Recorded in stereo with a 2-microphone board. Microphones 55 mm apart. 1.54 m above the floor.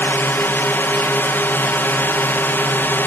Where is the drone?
40° left (ahead or behind).